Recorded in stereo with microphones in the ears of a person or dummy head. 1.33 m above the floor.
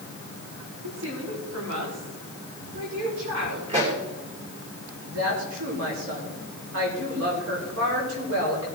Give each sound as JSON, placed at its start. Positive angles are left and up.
{"t": 0.8, "sound": "a woman speaking", "side_deg": -75, "distance_m": 4.0}
{"t": 3.7, "sound": "a pop", "side_deg": -45, "distance_m": 3.5}
{"t": 5.1, "sound": "a woman speaking", "side_deg": -80, "distance_m": 5.0}